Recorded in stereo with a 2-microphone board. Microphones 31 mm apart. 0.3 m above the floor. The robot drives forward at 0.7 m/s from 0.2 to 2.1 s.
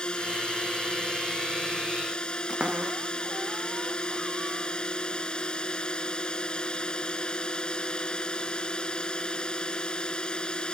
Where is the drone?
25° left (ahead or behind).